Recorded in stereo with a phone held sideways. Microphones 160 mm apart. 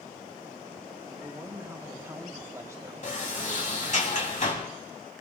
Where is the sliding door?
55° left (ahead or behind), 3 m.